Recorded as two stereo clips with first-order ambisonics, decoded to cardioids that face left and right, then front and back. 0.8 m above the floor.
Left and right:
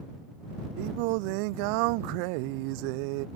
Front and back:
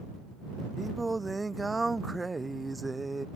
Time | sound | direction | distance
0.8 | singing | 100° right | ?